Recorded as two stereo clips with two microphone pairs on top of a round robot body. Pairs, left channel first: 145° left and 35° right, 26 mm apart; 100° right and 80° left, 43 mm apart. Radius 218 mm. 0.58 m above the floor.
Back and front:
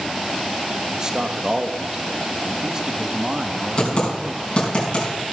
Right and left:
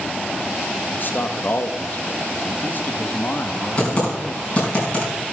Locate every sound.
0.9 s a man speaking: 95° right, 1.5 m
3.8 s typing on a keyboard: 160° right, 4.5 m